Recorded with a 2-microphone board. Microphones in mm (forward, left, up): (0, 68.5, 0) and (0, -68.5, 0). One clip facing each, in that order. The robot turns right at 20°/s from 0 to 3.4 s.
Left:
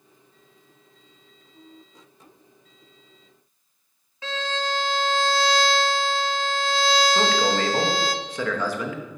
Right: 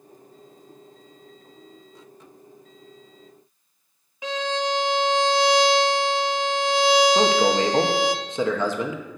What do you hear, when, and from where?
4.2 s a violin: 15° right (ahead or behind), 0.7 m
7.2 s a man speaking: 25° right (ahead or behind), 1.3 m